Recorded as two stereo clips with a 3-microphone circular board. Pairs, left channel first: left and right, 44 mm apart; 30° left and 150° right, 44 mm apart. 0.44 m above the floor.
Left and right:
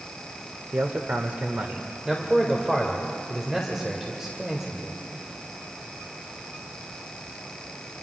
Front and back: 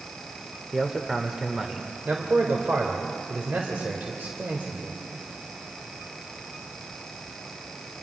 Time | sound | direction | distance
0.7 | a man speaking | 75° right | 1.0 m
2.0 | a man speaking | 165° right | 1.7 m